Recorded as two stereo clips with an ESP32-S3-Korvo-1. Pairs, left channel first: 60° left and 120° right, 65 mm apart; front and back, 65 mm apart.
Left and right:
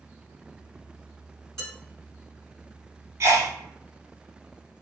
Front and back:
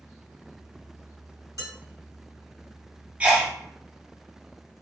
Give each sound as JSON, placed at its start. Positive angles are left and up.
{"t": 1.6, "sound": "dishes clattering", "azimuth_deg": -20, "distance_m": 1.8}
{"t": 3.2, "sound": "a sneeze", "azimuth_deg": -120, "distance_m": 1.0}